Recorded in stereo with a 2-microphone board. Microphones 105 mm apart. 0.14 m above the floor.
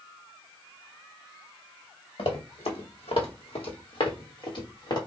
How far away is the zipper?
No zipper in this recording.